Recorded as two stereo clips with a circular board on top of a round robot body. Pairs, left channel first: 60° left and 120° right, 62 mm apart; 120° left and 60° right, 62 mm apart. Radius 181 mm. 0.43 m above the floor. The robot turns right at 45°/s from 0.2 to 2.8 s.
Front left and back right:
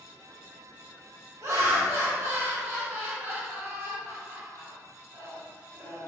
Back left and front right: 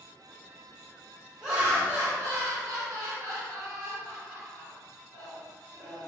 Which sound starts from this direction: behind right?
Laughter, at 1.4 s.